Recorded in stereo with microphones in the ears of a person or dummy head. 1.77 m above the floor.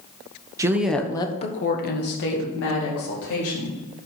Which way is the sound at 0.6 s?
20° right (ahead or behind).